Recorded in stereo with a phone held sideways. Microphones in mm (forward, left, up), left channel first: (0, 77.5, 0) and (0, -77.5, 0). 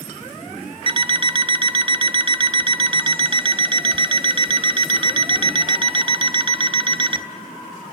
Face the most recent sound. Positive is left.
turn(degrees=-35)  # may be behind; listen again after turning